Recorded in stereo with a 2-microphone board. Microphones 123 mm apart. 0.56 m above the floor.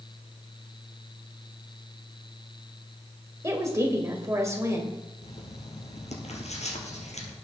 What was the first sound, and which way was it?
A woman speaking, 25° right (ahead or behind).